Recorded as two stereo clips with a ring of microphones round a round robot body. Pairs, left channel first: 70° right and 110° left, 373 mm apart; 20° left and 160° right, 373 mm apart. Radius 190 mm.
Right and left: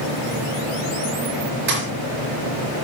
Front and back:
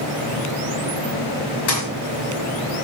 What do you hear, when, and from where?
1.7 s a thud: 50° left, 5 m